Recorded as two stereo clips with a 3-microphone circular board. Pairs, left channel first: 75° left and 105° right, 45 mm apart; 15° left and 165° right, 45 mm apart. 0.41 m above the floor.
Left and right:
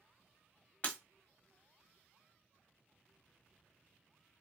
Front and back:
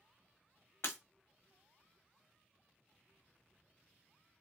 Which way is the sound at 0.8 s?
20° left.